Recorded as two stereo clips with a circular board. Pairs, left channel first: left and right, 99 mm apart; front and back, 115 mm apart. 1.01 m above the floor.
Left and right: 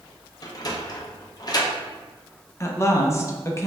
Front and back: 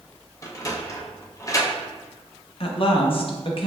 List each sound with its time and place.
0.4 s a sliding door: 50° left, 0.6 m
2.6 s a woman speaking: 30° left, 0.6 m